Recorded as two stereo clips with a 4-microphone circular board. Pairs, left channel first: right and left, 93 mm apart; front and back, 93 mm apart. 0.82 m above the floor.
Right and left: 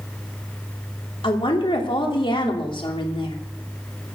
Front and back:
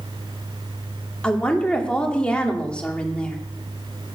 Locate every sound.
1.2 s a woman speaking: 80° right, 2.5 m